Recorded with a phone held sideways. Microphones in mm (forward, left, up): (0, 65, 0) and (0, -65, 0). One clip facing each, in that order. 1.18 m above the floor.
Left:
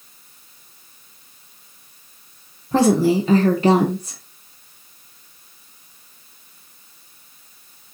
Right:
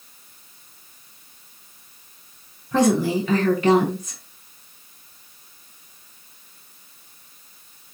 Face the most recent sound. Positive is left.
turn(degrees=30)  # may be behind; listen again after turning